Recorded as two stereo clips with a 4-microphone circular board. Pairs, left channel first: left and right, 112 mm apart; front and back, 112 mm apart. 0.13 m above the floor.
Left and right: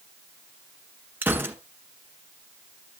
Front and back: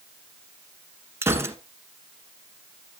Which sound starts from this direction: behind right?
A gunshot, at 1.2 s.